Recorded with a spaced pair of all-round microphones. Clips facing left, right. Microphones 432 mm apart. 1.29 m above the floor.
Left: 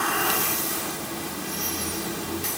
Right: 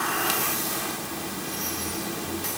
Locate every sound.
Only background noise.